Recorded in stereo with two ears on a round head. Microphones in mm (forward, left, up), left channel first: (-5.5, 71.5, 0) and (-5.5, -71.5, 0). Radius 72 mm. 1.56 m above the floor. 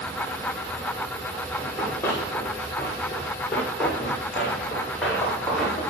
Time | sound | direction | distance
1.6 | running footsteps | 15° left (ahead or behind) | 7.5 m